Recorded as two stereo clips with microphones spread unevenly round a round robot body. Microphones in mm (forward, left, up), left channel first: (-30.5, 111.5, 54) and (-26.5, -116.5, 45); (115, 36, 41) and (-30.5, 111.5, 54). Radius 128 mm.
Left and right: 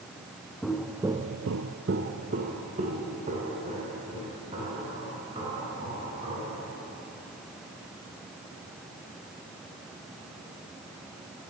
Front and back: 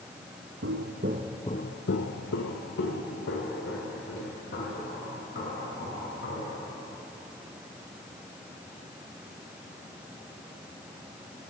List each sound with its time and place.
0.6 s footsteps: straight behind, 1.3 m; by 6.6 s 20° right, 7.5 m